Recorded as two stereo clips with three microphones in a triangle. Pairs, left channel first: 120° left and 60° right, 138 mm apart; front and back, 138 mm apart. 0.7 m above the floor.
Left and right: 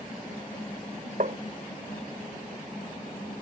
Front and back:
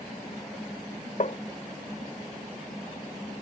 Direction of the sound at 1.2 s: 35° right.